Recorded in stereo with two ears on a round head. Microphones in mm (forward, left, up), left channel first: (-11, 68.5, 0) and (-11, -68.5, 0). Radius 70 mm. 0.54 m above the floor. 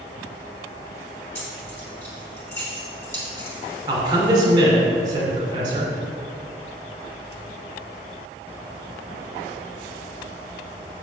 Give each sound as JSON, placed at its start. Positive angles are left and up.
{"t": 1.4, "sound": "keys jangling", "side_deg": 15, "distance_m": 3.0}
{"t": 3.9, "sound": "a man speaking", "side_deg": -30, "distance_m": 2.0}